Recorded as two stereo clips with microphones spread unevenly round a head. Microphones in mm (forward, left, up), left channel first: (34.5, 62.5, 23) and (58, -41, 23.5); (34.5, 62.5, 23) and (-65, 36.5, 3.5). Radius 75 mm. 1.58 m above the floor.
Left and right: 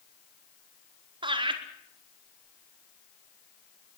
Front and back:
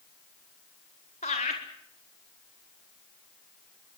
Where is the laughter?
35° right, 4.5 m.